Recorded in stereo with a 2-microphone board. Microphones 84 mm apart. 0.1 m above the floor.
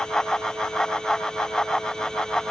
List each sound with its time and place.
Only background noise.